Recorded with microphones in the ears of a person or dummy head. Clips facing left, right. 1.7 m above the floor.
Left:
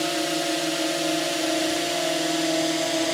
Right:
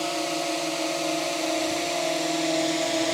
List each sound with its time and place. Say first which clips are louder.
0.0 s a drone: left 2 dB; 25° left (ahead or behind); by 3.2 s 10° left (ahead or behind)